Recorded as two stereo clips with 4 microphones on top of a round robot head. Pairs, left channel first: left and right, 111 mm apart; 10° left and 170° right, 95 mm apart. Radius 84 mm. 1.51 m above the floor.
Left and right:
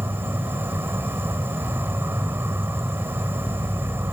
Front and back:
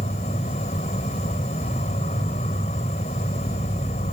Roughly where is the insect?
Ahead.